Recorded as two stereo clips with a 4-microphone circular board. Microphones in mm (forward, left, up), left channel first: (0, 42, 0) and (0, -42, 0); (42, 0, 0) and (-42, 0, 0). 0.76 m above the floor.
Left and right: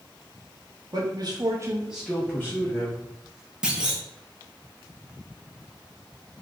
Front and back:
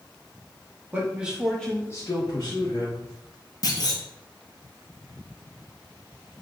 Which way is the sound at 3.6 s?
10° right.